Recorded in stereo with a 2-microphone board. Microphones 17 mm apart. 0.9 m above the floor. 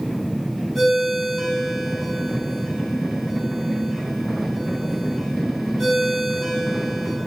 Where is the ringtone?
5° right (ahead or behind), 5.5 m.